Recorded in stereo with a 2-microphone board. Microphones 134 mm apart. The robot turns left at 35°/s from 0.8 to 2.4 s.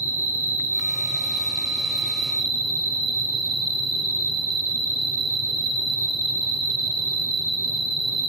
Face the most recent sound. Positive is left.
turn(degrees=170)